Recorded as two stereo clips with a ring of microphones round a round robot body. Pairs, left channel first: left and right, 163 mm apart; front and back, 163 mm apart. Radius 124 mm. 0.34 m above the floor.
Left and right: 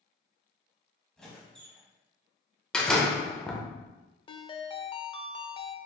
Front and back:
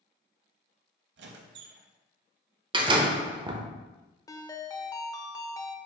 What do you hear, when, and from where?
1.2 s a squeak: 175° left, 0.6 m
2.7 s a door slam: 170° left, 0.7 m
4.3 s a ringtone: 55° left, 0.6 m